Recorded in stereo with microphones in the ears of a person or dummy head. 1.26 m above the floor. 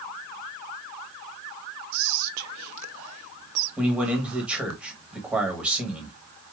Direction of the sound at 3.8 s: 10° right (ahead or behind).